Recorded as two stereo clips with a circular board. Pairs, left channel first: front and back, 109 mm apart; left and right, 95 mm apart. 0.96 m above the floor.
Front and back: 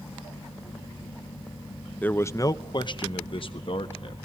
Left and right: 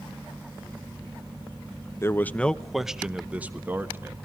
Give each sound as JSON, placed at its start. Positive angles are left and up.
{"t": 2.0, "sound": "a man speaking", "azimuth_deg": 60, "distance_m": 0.6}